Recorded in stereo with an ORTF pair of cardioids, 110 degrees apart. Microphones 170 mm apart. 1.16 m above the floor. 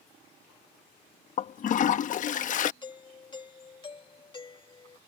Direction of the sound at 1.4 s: 50° left.